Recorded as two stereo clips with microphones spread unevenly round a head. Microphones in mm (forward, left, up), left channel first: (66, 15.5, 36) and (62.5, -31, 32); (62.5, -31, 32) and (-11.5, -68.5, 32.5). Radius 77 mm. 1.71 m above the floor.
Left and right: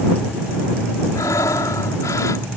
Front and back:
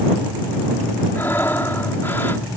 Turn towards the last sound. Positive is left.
turn(degrees=105)